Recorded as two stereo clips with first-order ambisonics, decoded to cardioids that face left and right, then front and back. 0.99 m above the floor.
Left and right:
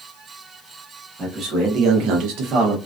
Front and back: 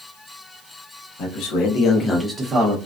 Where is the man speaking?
30° right, 1.2 m; by 2.8 s 135° right, 0.8 m.